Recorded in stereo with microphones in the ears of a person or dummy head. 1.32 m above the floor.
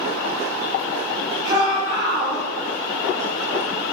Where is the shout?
25° right (ahead or behind), 6.5 m.